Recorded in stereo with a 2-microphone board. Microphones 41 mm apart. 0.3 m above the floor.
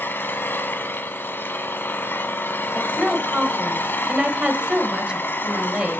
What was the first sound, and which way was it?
An engine running, 60° left (ahead or behind).